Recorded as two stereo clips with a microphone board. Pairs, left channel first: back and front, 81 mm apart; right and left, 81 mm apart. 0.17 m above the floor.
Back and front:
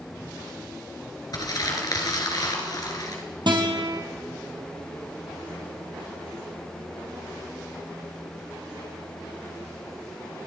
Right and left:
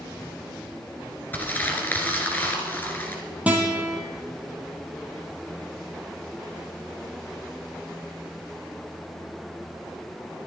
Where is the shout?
I don't hear a shout.